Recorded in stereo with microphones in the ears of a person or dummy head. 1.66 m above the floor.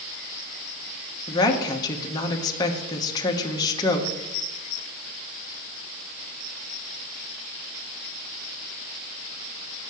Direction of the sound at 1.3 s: 25° left (ahead or behind).